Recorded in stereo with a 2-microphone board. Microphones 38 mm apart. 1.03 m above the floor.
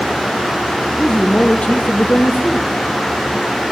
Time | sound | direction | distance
1.0 | a man speaking | 15° left (ahead or behind) | 1.3 m